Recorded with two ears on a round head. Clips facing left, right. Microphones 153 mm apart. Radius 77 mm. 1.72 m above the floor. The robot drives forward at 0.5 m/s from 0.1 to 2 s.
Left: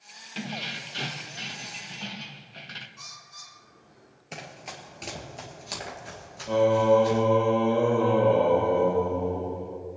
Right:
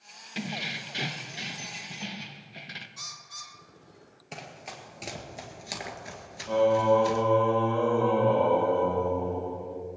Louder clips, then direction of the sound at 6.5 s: Left 2 dB; 20° left (ahead or behind).